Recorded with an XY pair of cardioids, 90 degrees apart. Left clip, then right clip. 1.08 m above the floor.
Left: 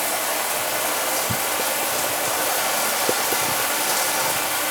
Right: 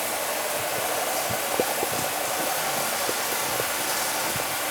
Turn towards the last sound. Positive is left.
turn(degrees=45)